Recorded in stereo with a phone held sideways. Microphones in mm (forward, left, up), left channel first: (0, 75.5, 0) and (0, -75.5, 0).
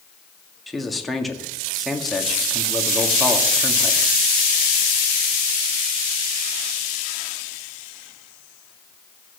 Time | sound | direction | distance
0.7 | a man speaking | centre (ahead or behind) | 1.9 m